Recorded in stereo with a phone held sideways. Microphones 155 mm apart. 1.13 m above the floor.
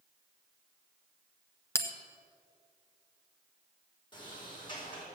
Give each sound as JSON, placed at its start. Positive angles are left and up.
{"t": 1.8, "sound": "a bell", "side_deg": 15, "distance_m": 1.1}
{"t": 4.1, "sound": "a sliding door", "side_deg": 30, "distance_m": 4.0}